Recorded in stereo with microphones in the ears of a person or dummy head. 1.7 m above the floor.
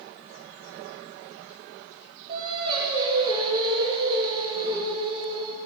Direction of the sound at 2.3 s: 35° right (ahead or behind).